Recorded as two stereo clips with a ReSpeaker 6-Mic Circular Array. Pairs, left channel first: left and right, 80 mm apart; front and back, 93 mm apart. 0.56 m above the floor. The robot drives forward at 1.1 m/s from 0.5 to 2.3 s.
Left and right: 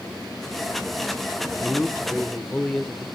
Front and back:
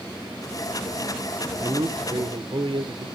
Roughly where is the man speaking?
Behind left.